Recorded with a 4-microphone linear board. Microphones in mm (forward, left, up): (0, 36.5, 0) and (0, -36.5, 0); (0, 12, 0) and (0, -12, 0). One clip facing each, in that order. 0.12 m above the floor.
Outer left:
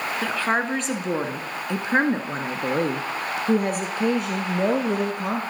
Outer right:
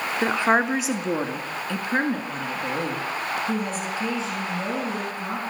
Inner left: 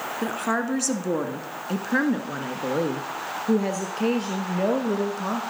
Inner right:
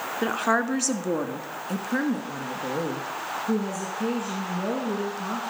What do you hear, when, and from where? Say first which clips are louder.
0.2 s a woman speaking: outer right 4 dB, inner right 3 dB; 25° right (ahead or behind), 1.1 m; by 5.4 s 65° left (ahead or behind), 2.5 m